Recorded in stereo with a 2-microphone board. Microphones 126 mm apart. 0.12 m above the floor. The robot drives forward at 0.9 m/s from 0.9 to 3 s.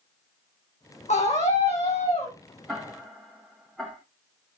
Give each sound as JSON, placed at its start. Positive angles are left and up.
{"t": 1.1, "sound": "a scream", "side_deg": 65, "distance_m": 6.0}
{"t": 2.7, "sound": "ticking", "side_deg": 5, "distance_m": 7.0}